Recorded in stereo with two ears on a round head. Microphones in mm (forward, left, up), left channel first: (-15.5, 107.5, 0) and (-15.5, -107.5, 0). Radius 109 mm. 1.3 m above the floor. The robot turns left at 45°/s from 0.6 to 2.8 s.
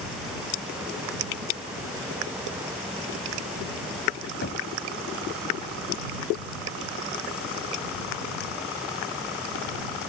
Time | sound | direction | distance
4.4 | knocking | 45° left (ahead or behind) | ?